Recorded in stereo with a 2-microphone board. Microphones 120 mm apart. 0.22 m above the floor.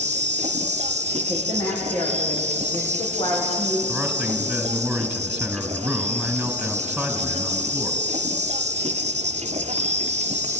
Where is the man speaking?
Centre (ahead or behind), 2.5 m.